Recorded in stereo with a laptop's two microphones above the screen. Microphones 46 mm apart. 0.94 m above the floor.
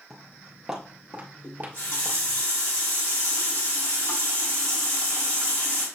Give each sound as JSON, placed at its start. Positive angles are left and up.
{"t": 0.1, "sound": "footsteps", "side_deg": 10, "distance_m": 0.9}
{"t": 1.4, "sound": "a running tap", "side_deg": 75, "distance_m": 1.6}